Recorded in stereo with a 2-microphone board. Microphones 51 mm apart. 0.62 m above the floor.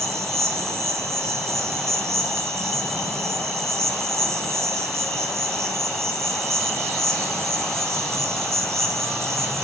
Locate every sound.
0.0 s an insect: 70° right (ahead or behind), 1.9 m